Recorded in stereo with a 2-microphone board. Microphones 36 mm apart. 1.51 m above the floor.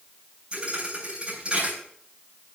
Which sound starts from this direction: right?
A thud, at 0.5 s.